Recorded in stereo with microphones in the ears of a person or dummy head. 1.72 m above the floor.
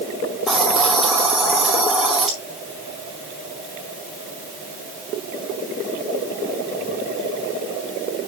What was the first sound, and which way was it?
A hiss, centre (ahead or behind).